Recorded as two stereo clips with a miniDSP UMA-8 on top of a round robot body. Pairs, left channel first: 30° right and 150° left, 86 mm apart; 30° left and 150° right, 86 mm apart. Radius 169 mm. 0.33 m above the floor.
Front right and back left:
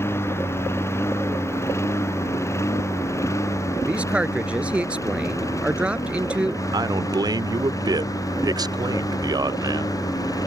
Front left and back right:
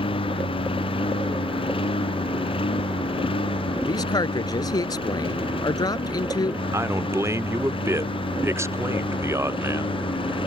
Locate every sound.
0.0 s a lawn mower: 30° left; by 10.5 s 20° left
3.9 s a man speaking: 75° left
6.7 s a man speaking: 165° left